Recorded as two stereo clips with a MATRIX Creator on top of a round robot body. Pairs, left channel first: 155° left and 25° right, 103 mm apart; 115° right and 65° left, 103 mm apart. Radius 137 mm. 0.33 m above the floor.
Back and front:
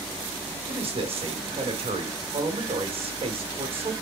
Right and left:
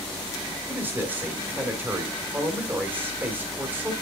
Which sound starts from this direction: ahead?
A man speaking, at 0.7 s.